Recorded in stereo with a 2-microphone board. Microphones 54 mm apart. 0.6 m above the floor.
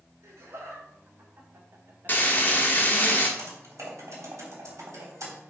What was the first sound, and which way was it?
Laughter, 60° right (ahead or behind).